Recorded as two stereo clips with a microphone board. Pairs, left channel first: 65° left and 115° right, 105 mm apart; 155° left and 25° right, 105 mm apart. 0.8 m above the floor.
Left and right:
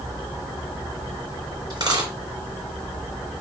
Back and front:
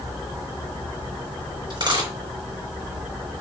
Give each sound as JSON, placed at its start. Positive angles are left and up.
{"t": 1.7, "sound": "a dropped coin", "azimuth_deg": -65, "distance_m": 3.0}